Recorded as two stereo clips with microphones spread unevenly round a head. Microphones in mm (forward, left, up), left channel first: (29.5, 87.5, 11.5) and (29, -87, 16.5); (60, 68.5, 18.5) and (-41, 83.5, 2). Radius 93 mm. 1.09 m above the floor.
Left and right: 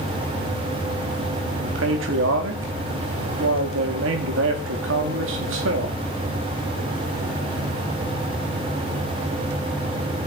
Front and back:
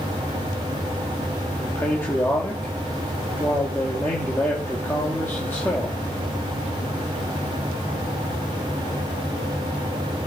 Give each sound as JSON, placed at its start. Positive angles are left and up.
{"t": 1.5, "sound": "a man speaking", "azimuth_deg": -90, "distance_m": 2.5}